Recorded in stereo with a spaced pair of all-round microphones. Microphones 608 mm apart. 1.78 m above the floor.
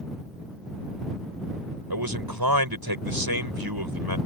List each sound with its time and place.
1.9 s a man speaking: 40° right (ahead or behind)